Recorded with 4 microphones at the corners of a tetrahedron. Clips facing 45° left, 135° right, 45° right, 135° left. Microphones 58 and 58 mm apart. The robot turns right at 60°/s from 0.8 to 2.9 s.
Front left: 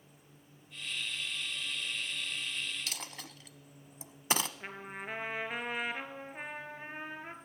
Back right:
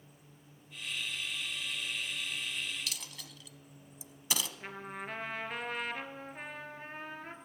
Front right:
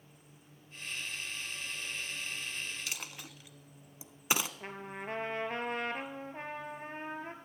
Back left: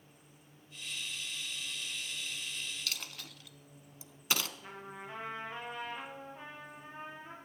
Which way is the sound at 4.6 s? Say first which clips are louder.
Even, front right 4 dB; 30° right.